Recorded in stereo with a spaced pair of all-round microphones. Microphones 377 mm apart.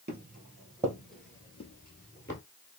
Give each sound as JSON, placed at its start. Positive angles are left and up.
{"t": 0.1, "sound": "footsteps", "side_deg": -25, "distance_m": 1.5}